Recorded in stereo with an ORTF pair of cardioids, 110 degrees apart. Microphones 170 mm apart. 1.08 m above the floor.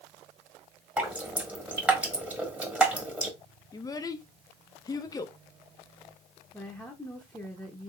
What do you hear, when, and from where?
1.0 s dripping: 10° right, 1.4 m
3.7 s a child speaking: 20° left, 0.5 m
6.5 s a woman speaking: 5° left, 1.0 m